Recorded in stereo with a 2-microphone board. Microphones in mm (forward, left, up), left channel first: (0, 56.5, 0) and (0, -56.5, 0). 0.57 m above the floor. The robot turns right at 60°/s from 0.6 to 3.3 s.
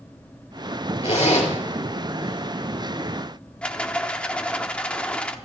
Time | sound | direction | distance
1.0 | a zipper | 60° left (ahead or behind) | 4.5 m
3.6 | a rattle | 10° left (ahead or behind) | 1.0 m